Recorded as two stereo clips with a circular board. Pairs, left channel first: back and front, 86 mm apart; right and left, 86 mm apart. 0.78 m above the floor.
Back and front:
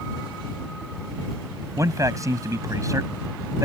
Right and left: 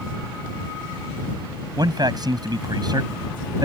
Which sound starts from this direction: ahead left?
A man speaking, at 1.8 s.